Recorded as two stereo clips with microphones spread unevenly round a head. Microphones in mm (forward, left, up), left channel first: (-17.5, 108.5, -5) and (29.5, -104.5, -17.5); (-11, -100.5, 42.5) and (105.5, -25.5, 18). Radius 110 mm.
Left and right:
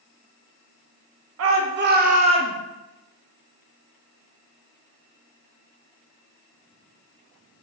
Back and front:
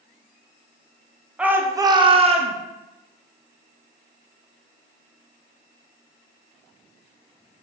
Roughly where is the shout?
Ahead right.